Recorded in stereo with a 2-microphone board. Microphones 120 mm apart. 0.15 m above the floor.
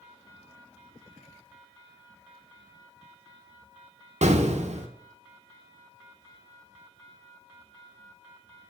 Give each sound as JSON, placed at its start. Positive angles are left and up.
{"t": 4.2, "sound": "an explosion", "side_deg": -70, "distance_m": 0.9}